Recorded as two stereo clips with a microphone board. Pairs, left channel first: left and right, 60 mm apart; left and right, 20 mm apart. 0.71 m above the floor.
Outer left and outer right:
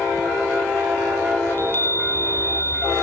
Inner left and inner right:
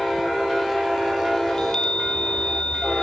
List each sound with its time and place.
1.5 s a chime: 40° left (ahead or behind), 1.6 m